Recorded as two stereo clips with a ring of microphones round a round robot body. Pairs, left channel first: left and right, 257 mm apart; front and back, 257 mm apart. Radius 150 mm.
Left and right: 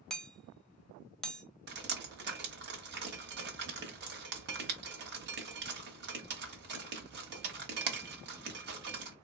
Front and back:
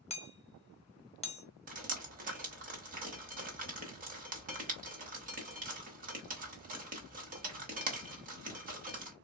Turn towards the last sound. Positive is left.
turn(degrees=-130)